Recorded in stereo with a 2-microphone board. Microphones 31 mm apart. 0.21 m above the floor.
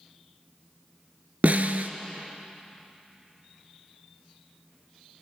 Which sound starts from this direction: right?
A snare drum, at 1.4 s.